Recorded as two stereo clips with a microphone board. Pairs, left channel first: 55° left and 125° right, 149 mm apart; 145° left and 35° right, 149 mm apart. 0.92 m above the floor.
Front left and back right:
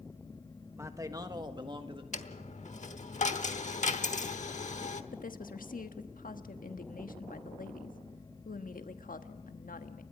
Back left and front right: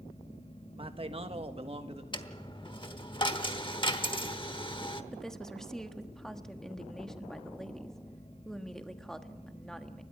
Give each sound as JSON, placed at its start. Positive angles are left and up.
{"t": 0.8, "sound": "a man speaking", "azimuth_deg": -60, "distance_m": 1.1}
{"t": 2.1, "sound": "a dropped coin", "azimuth_deg": 90, "distance_m": 1.1}
{"t": 5.1, "sound": "a woman speaking", "azimuth_deg": 60, "distance_m": 1.3}